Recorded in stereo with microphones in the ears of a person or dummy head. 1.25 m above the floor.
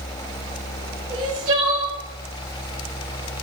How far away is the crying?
About 1.8 m.